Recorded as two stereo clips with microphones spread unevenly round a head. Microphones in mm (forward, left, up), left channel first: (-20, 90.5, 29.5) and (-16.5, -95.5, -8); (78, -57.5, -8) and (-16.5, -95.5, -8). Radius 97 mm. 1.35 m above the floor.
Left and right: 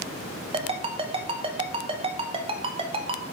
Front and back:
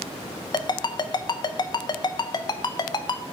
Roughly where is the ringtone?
Ahead.